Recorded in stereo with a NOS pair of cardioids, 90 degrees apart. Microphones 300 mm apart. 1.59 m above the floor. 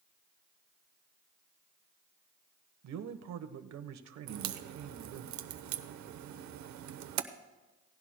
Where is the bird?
No bird in this recording.